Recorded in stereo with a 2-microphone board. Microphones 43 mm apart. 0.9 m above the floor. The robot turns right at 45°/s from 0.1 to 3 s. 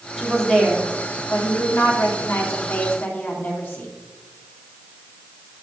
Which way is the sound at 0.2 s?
5° right.